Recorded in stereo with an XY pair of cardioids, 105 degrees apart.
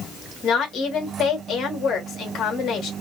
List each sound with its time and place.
0.4 s a woman speaking: 60° left, 1.6 m